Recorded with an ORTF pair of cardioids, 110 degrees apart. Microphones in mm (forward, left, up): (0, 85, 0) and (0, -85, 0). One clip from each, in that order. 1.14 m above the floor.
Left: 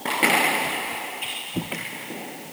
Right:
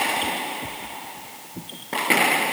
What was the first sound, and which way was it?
Only background noise.